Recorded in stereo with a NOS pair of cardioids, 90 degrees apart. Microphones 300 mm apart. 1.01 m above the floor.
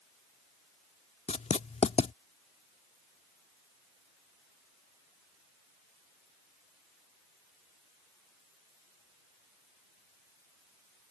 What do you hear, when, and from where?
1.3 s writing: 25° left